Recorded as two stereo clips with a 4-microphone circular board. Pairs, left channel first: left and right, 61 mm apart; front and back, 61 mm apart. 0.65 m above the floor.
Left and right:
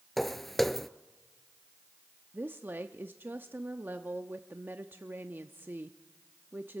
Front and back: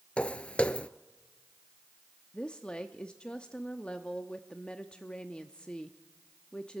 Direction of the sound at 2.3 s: 60° right.